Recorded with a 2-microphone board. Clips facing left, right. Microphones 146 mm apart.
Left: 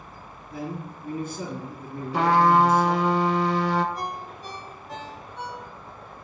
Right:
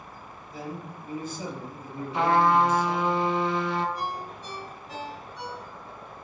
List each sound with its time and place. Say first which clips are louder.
0.5 s a man speaking: left 4 dB; 65° left (ahead or behind), 3 m
2.1 s a trumpet: left 2 dB; 65° left (ahead or behind), 0.6 m
4.0 s a ringtone: even; 50° left (ahead or behind), 1.7 m